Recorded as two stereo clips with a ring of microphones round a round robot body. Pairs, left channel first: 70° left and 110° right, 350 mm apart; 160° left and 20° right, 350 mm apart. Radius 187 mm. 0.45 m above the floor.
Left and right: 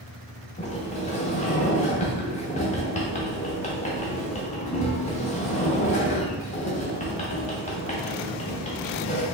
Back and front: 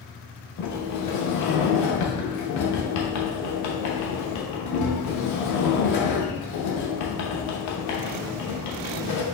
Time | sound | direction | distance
0.6 | a sliding door | 135° left | 0.9 m